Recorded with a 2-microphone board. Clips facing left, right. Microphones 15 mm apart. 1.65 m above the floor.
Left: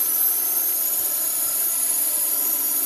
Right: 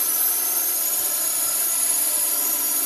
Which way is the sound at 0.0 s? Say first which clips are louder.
Right 2 dB; 20° right (ahead or behind).